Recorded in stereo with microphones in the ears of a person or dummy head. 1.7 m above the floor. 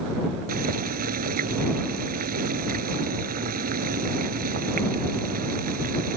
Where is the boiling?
50° right (ahead or behind).